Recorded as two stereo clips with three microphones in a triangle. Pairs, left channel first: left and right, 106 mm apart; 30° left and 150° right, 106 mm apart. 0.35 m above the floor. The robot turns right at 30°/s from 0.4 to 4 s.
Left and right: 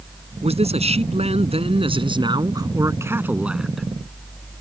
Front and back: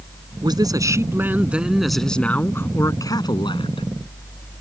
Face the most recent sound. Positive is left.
turn(degrees=5)